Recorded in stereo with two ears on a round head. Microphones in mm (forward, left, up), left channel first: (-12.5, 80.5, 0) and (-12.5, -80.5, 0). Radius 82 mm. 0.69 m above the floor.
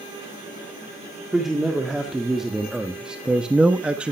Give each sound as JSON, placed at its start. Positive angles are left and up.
{"t": 1.3, "sound": "a man speaking", "side_deg": 0, "distance_m": 1.7}